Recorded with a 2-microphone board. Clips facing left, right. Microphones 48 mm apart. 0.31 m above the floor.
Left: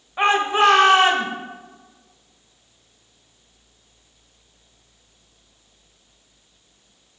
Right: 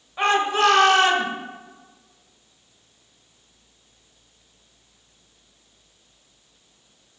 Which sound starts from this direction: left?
A shout, at 0.2 s.